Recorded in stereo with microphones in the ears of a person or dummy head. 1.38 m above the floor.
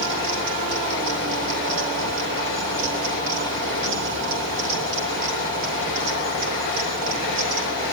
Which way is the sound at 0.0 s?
60° right (ahead or behind).